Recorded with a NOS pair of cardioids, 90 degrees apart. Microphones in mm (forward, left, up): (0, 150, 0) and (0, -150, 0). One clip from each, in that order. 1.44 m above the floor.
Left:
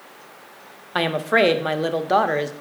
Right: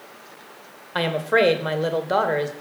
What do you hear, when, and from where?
0.9 s a woman speaking: 15° left, 0.7 m